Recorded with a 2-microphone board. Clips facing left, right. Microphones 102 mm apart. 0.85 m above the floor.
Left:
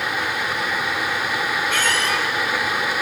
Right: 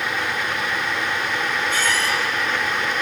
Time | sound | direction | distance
1.7 | a squeak | 75° left (ahead or behind) | 3 m